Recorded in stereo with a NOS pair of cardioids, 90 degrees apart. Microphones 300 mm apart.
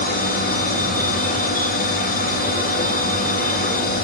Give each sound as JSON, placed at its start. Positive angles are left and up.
{"t": 0.0, "sound": "a machine running", "azimuth_deg": 30, "distance_m": 2.5}